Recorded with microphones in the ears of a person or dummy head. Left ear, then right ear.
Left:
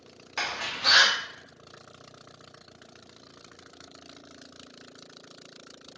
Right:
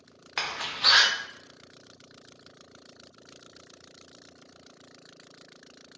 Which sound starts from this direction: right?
A door slam, at 0.4 s.